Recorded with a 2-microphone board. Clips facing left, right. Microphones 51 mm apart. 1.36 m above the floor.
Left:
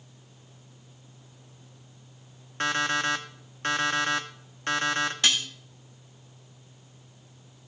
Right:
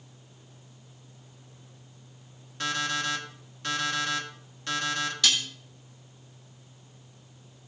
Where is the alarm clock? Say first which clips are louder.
Left 4 dB; 45° left (ahead or behind), 1.4 m.